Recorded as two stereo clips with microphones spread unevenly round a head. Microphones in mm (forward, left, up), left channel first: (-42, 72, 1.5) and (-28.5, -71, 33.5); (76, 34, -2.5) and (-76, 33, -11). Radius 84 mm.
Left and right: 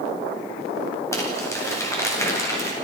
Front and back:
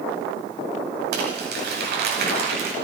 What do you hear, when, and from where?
1.1 s crumpling: 165° left, 9 m